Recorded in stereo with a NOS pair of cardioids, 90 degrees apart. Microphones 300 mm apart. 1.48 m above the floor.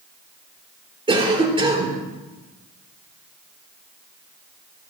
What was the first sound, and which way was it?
A cough, 15° right.